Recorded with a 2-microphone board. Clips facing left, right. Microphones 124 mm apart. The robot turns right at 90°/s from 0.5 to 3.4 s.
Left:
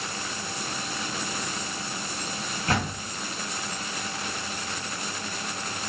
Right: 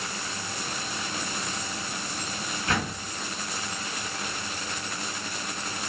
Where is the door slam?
135° left, 1.9 m; by 3.1 s 170° left, 1.9 m.